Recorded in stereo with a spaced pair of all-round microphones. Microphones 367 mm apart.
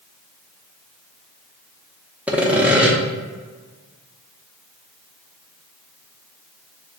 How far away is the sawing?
About 0.6 m.